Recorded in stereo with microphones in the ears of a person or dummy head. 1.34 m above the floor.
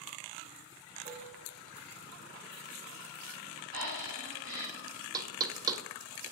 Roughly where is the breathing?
Right.